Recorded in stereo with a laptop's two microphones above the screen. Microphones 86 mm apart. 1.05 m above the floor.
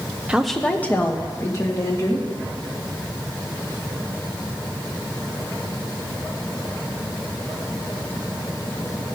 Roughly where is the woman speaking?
Centre.